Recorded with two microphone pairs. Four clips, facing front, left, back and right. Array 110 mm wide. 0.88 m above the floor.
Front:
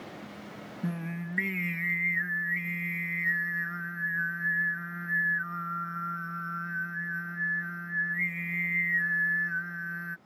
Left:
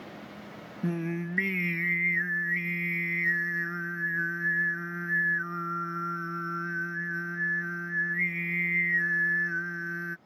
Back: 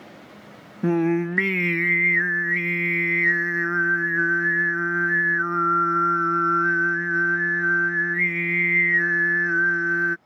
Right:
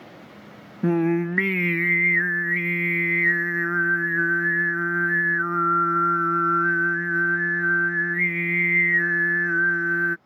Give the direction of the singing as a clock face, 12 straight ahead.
5 o'clock.